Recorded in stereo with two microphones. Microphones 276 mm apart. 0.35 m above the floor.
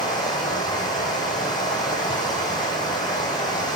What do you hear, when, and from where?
0.0 s running water: 15° left (ahead or behind), 1.8 m